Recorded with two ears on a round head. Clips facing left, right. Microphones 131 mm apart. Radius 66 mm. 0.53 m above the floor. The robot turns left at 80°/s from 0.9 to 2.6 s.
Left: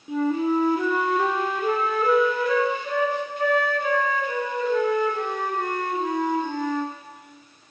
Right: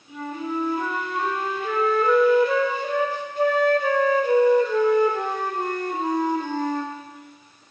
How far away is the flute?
About 0.7 m.